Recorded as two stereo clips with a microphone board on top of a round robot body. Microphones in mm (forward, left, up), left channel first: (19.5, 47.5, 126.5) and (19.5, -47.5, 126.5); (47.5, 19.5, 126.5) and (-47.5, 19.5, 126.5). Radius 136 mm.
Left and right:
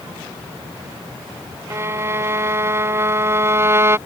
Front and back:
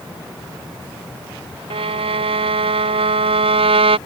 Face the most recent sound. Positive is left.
turn(degrees=-155)